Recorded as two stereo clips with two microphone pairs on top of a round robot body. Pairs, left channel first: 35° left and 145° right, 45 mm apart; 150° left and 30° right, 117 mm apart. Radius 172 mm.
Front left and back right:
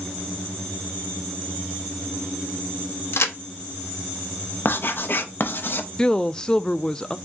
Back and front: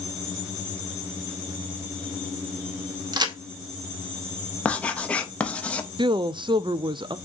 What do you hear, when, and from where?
3.1 s a crack: 20° left, 0.8 m
4.7 s writing: 70° left, 0.9 m
6.0 s a woman speaking: 25° right, 0.5 m